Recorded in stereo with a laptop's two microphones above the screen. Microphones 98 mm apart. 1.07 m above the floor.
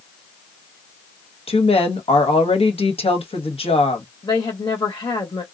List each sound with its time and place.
1.5 s a woman speaking: 75° left (ahead or behind), 1.3 m
4.2 s a woman speaking: 55° left (ahead or behind), 1.4 m